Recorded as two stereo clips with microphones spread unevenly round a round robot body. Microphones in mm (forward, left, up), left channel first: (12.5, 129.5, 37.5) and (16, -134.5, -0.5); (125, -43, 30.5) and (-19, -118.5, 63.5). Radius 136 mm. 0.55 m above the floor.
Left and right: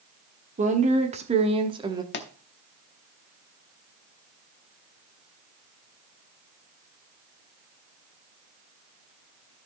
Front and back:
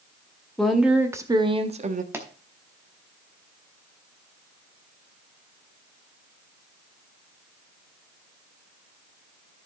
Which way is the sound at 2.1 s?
125° left.